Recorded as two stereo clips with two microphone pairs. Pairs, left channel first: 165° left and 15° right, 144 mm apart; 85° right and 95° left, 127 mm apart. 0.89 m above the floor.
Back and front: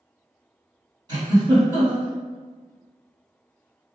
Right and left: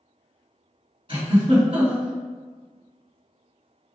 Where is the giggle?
45° left, 2.0 m.